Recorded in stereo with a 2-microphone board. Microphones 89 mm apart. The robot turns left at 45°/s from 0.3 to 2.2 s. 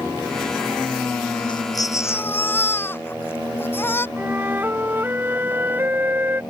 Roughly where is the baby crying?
Ahead left.